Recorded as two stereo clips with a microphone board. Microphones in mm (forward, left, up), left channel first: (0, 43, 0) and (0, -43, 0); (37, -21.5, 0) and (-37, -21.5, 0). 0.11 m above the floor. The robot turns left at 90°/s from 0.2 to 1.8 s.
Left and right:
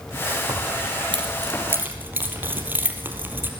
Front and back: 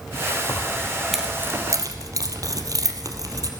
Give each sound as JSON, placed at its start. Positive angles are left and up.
{"t": 0.5, "sound": "keys jangling", "azimuth_deg": -35, "distance_m": 2.5}